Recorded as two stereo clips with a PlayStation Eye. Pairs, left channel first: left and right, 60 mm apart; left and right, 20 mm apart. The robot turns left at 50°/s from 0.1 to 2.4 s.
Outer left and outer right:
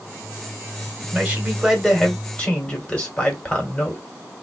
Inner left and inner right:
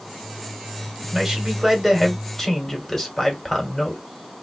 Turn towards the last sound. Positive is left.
turn(degrees=155)